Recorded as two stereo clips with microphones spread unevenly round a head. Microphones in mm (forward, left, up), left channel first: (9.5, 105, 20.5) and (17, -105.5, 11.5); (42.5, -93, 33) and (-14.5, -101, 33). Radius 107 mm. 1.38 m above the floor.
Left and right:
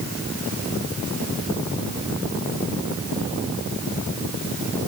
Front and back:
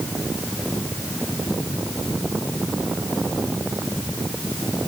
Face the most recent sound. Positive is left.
No sound to turn to.